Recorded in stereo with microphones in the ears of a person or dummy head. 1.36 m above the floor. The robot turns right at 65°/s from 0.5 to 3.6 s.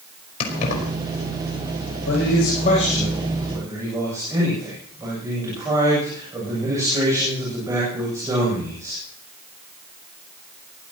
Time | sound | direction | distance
0.4 | keys jangling | 40° left (ahead or behind) | 5 m
2.0 | a man speaking | 95° left | 8 m